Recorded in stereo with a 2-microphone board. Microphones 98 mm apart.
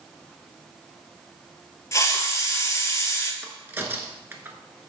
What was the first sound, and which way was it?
A hiss, 35° left (ahead or behind).